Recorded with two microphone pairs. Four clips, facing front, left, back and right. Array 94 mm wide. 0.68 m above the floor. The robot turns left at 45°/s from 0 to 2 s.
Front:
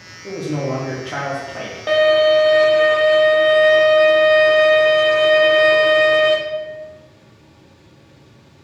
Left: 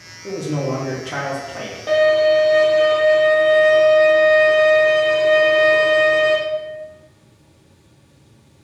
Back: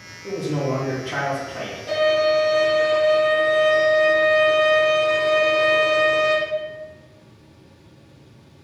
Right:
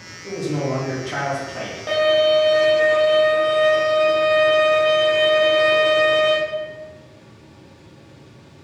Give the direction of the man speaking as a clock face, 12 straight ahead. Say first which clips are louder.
Left 1 dB, front 1 dB; 10 o'clock.